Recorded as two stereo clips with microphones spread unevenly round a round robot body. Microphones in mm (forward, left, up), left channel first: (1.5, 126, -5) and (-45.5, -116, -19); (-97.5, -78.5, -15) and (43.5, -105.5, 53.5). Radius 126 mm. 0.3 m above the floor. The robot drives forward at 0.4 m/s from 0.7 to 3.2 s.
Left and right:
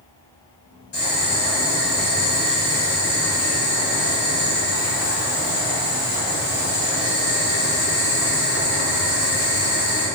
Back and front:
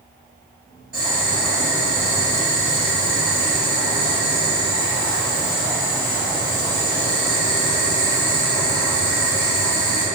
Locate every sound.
0.9 s boiling: 85° left, 1.9 m; by 10.1 s 120° left, 2 m